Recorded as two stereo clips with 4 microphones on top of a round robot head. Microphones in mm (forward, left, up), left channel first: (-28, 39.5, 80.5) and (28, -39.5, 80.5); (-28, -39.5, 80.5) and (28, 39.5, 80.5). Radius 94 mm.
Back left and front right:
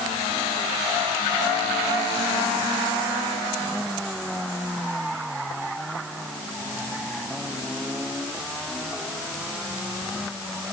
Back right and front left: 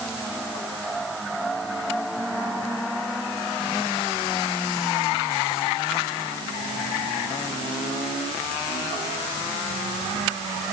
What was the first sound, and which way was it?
Only background noise.